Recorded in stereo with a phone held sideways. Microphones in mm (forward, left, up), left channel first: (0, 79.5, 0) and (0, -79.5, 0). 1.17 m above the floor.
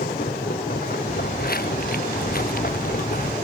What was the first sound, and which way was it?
A machine running, 75° left (ahead or behind).